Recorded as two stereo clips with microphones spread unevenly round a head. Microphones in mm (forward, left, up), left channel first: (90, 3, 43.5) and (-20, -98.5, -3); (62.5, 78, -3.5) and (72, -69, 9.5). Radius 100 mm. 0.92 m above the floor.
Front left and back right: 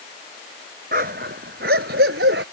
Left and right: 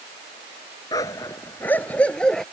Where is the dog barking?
170° left; by 2.5 s straight behind.